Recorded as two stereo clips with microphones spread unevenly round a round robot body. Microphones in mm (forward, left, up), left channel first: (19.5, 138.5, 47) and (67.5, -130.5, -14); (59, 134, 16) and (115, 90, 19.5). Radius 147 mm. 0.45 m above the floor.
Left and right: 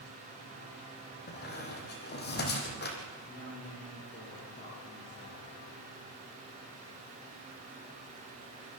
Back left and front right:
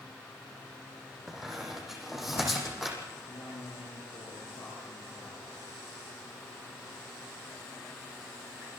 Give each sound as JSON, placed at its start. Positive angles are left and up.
{"t": 1.3, "sound": "a squeak", "azimuth_deg": 50, "distance_m": 5.5}
{"t": 3.3, "sound": "a woman speaking", "azimuth_deg": 160, "distance_m": 8.5}